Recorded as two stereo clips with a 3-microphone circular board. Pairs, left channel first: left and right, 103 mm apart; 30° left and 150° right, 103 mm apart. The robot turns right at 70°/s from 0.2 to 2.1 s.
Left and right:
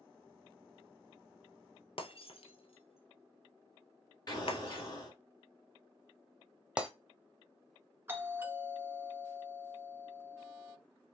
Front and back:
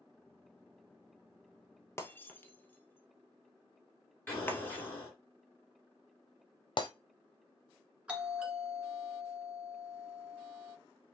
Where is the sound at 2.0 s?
90° left, 0.7 m; by 4.9 s 100° left, 0.7 m.